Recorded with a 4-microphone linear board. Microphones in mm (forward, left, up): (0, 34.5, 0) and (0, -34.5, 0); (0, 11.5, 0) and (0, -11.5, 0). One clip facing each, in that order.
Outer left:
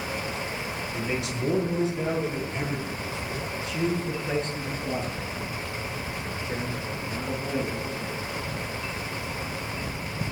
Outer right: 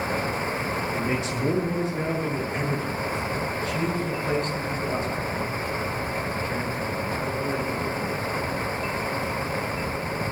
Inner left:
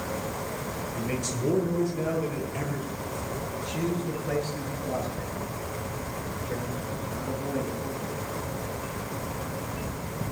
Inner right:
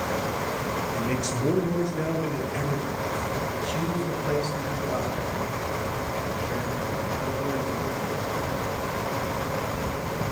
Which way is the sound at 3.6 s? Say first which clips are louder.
Outer left 3 dB, inner right 2 dB; 45° right (ahead or behind).